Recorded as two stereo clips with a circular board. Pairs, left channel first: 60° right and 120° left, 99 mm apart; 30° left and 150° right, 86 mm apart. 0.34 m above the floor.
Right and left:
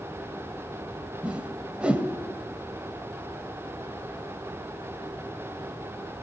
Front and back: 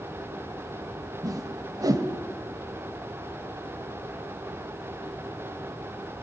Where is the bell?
No bell in this recording.